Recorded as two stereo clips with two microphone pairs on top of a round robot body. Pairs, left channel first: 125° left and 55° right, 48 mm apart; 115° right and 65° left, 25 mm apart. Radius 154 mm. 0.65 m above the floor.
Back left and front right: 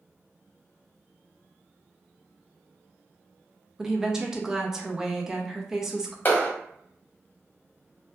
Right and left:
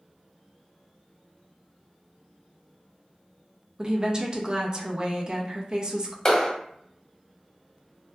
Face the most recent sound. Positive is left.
turn(degrees=180)